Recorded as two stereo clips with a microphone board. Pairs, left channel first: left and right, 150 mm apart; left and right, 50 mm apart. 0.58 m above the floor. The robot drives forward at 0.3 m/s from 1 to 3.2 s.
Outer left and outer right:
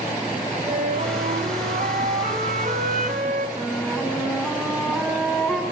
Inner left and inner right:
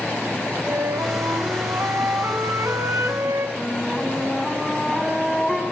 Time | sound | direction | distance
0.7 | a flute | 65° right (ahead or behind) | 3.5 m
3.6 | a flute | 5° left (ahead or behind) | 4.5 m